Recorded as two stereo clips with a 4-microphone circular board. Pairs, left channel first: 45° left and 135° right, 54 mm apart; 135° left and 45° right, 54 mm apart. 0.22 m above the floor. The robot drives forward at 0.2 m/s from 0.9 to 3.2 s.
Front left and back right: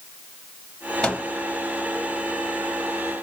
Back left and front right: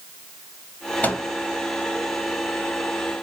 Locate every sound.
1.0 s a microwave: 105° left, 1.0 m; by 1.2 s 110° left, 1.0 m